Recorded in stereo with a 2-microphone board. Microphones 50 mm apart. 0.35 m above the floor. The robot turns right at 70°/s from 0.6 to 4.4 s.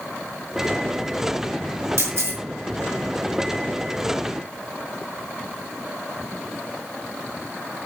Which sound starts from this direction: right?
A camera shutter, at 2.0 s.